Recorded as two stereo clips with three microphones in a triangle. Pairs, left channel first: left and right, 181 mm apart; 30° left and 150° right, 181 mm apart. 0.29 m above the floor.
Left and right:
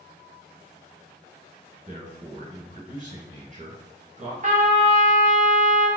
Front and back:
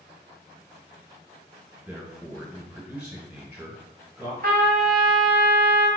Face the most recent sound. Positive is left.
turn(degrees=-125)